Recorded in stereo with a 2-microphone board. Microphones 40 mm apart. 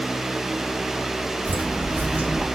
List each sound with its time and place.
1.4 s footsteps: 50° right (ahead or behind), 4 m; by 2.5 s 40° right (ahead or behind), 3.5 m